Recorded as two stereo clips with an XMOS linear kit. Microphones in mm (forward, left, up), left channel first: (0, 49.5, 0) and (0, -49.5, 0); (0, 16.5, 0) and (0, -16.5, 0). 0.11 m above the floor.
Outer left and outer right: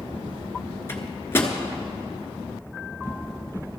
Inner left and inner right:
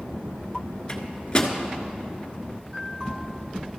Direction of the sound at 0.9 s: 25° left (ahead or behind).